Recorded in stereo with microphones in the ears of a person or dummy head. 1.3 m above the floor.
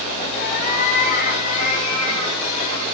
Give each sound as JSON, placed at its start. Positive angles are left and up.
{"t": 0.4, "sound": "a cat meowing", "side_deg": 45, "distance_m": 3.5}